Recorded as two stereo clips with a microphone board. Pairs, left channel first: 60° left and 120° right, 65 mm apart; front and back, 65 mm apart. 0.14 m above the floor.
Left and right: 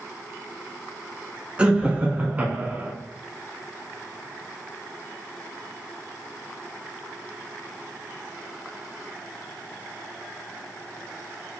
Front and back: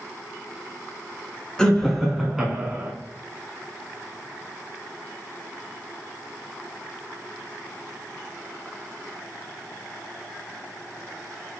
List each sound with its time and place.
1.6 s laughter: 65° right, 1.2 m; by 2.9 s 140° right, 1.2 m